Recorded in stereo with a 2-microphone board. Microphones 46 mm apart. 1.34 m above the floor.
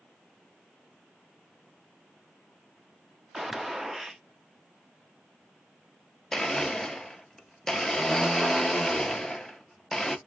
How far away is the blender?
About 0.6 m.